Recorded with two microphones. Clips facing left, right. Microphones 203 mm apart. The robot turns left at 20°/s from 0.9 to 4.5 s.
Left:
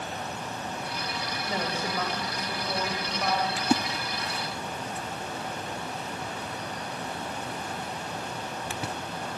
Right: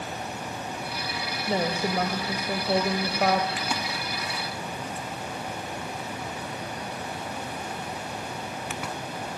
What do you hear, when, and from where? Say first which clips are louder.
1.5 s a woman speaking: right 6 dB; 45° right, 2.5 m; by 3.5 s 85° right, 2.5 m
3.6 s a splash: left 5 dB; 45° left (ahead or behind), 0.5 m; by 8.9 s 35° left (ahead or behind), 0.5 m